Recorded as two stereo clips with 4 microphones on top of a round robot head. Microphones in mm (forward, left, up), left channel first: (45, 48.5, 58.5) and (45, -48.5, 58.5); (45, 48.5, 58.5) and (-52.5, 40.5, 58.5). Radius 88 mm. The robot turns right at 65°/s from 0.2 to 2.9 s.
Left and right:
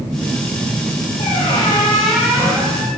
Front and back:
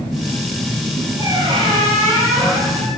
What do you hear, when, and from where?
1.2 s a squeak: 125° left, 3.5 m; by 2.9 s 125° right, 3.5 m